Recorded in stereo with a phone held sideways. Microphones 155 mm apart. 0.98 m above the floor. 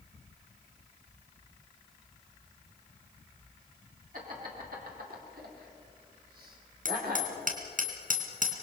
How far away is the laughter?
About 3 m.